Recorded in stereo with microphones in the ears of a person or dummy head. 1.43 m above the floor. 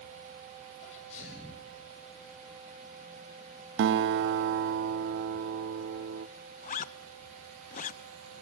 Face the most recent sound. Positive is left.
turn(degrees=40)  # may be behind; listen again after turning